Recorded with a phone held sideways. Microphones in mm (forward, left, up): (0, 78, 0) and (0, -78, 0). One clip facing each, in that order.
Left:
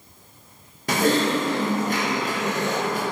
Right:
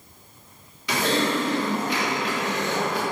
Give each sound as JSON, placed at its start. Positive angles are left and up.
{"t": 0.9, "sound": "typing on a keyboard", "side_deg": 50, "distance_m": 0.5}